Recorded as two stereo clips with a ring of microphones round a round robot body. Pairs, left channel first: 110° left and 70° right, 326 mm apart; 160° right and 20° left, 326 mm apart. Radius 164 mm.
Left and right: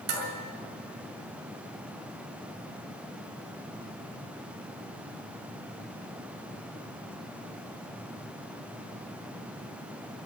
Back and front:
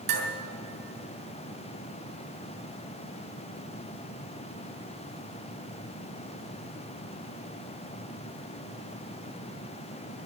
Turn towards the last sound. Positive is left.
turn(degrees=-40)